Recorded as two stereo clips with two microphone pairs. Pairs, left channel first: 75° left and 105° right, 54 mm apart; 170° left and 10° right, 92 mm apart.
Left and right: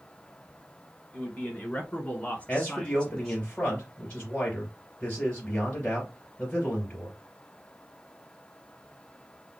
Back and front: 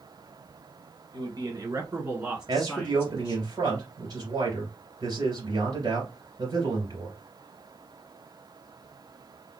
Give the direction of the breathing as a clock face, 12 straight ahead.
I don't hear breathing.